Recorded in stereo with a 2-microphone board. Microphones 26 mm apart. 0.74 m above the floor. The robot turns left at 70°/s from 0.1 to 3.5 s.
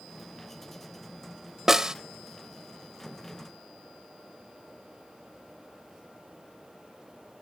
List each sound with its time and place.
1.7 s a snare drum: 15° right (ahead or behind); by 1.9 s 25° right (ahead or behind)